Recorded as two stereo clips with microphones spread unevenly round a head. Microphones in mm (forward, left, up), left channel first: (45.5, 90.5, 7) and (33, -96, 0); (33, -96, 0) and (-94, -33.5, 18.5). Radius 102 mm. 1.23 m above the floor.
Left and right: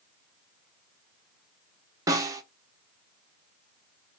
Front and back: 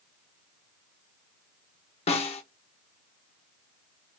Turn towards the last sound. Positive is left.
turn(degrees=-30)